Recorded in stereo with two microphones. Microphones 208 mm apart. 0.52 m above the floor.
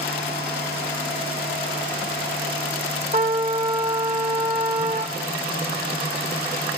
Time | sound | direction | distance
3.1 | a trumpet | 40° right (ahead or behind) | 1.3 m